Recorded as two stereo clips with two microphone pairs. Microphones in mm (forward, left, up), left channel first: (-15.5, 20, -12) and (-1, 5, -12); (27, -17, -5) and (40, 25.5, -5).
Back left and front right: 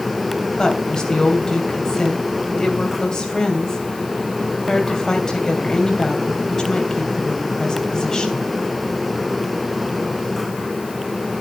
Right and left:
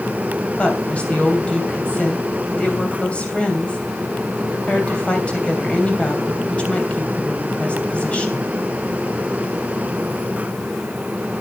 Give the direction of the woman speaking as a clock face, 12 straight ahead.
6 o'clock.